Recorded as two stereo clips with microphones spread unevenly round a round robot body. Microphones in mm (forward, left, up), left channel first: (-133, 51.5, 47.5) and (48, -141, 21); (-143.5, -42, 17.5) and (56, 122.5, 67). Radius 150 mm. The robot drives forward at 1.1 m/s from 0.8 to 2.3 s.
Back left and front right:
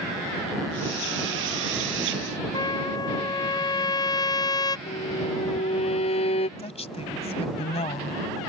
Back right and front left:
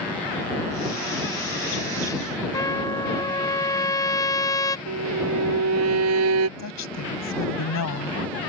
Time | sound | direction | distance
2.5 | a trumpet | 155° right | ?
4.9 | a violin | 65° left | ?
6.6 | a woman speaking | 160° right | ?